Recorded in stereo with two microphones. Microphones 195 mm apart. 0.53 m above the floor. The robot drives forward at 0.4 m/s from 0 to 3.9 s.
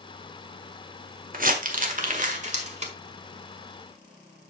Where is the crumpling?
50° right (ahead or behind), 1.5 m; by 2.9 s 35° right (ahead or behind), 1.9 m.